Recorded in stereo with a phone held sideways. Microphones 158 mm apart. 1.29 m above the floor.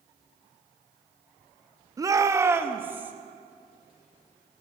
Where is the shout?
20° right (ahead or behind), 0.6 m; by 3.1 s 10° right (ahead or behind), 1.1 m.